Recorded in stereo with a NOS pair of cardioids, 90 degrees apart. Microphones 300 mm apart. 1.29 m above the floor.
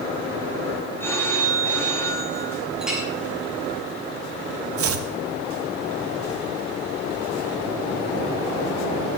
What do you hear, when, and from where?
1.0 s a phone ringing: 5° left, 6 m
2.8 s a clink: straight ahead, 7 m
4.8 s chopping: 50° right, 1.4 m